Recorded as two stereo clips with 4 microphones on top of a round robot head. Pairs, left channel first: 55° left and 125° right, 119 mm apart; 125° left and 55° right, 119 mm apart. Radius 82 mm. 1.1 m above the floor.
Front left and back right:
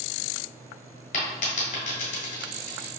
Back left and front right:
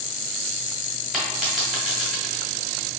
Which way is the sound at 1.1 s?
35° left.